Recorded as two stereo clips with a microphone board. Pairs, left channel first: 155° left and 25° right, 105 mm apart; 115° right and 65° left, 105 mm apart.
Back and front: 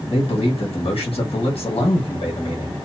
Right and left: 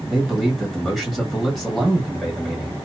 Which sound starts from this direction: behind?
A man speaking, at 0.1 s.